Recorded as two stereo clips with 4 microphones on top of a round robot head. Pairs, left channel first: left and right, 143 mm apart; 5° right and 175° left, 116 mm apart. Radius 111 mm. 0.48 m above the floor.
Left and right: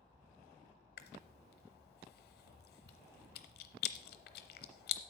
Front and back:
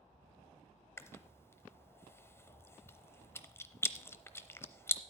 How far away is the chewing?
About 0.7 m.